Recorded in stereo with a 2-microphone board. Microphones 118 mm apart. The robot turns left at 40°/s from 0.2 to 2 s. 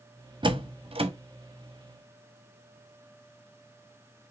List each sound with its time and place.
0.4 s a door slam: 40° right (ahead or behind), 0.8 m; by 1.1 s 50° right (ahead or behind), 0.8 m